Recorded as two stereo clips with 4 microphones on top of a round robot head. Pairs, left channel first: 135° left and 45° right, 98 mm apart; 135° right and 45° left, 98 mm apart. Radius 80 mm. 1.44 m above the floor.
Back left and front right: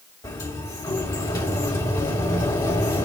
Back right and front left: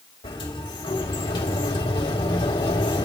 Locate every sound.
0.2 s a sliding door: 175° right, 2.5 m